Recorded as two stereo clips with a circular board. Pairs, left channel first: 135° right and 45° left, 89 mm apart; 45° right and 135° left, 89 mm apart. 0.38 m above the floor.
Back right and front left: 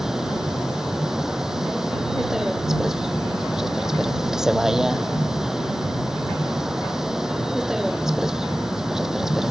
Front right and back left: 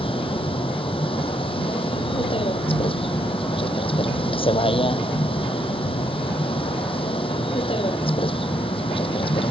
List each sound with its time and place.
0.0 s a vehicle: 40° right